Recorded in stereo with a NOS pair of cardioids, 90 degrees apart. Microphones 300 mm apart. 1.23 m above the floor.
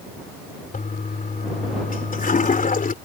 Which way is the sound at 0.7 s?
25° left.